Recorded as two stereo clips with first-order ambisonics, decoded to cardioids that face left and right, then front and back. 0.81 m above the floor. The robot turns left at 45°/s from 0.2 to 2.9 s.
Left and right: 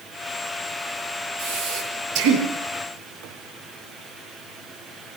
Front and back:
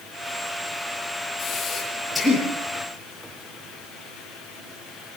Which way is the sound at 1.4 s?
55° right.